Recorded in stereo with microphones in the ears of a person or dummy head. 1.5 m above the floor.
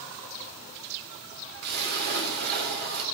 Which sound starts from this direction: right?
A splash, at 1.6 s.